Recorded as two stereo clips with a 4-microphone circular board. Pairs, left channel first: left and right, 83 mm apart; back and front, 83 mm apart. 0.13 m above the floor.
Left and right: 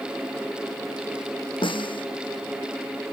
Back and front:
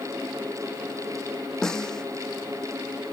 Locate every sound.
1.6 s a snare drum: 95° left